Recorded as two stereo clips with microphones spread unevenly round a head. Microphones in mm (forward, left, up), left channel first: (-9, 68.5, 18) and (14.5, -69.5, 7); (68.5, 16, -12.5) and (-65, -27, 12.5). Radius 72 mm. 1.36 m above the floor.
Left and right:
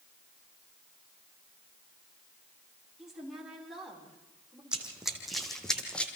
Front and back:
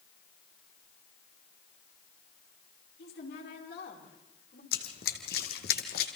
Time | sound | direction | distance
3.0 | a woman speaking | 5° left | 4.5 m
4.7 | running footsteps | 5° left | 2.5 m